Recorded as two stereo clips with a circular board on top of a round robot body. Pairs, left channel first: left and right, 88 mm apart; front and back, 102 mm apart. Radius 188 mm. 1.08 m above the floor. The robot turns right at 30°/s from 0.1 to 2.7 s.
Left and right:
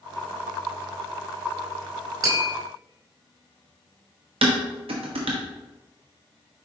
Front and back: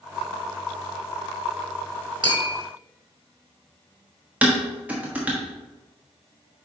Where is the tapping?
135° right, 2 m; by 2.5 s 125° right, 2 m.